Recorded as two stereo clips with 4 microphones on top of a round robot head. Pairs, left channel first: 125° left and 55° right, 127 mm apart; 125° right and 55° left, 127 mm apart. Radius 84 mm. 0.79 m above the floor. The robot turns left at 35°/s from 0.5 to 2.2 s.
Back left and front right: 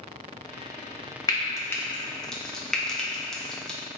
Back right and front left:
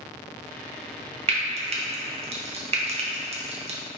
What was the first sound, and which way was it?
Frying, 75° left.